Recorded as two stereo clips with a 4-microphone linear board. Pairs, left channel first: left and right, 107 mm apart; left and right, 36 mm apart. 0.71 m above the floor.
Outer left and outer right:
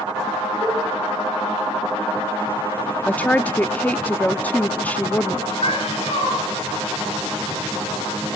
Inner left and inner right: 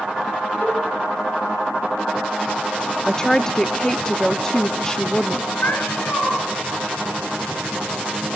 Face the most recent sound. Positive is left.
turn(degrees=60)  # may be behind; listen again after turning